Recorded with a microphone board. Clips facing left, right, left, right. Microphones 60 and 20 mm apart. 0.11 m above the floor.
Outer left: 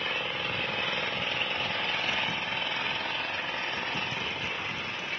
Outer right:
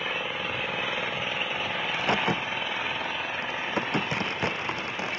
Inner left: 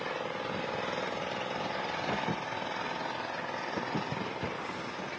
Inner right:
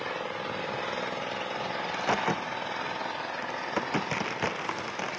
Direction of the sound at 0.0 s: 5° right (ahead or behind).